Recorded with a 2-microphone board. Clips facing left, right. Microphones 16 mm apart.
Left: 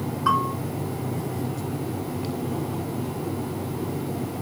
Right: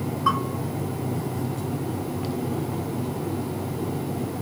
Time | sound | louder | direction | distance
0.3 | a bell | left 2 dB | 20° left (ahead or behind) | 1.0 m